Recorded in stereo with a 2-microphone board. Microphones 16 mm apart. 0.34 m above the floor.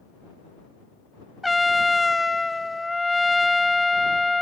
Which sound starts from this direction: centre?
A trumpet, at 1.4 s.